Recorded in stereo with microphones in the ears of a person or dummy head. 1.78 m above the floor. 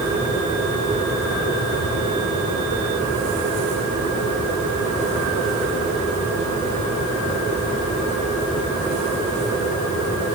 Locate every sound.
Only background noise.